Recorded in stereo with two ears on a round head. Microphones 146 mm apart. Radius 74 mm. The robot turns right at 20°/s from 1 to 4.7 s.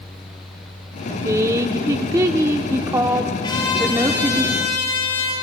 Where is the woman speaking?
20° right (ahead or behind), 1.0 m; by 4.4 s 15° right (ahead or behind), 1.0 m.